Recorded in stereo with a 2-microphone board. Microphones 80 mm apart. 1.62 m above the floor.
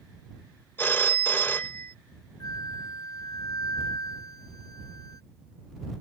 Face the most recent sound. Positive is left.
turn(degrees=50)  # may be behind; listen again after turning